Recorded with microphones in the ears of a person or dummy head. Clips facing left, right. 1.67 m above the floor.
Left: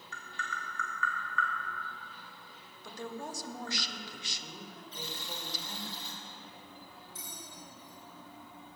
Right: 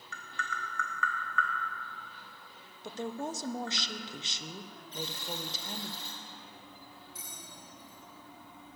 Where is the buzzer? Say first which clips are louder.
Right 6 dB; 45° right (ahead or behind), 1.8 m.